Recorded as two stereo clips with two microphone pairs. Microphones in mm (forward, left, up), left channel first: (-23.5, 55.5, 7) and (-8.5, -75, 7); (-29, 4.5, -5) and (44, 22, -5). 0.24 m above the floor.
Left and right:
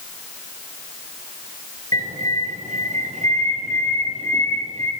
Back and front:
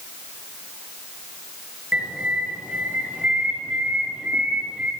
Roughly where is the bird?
Ahead right.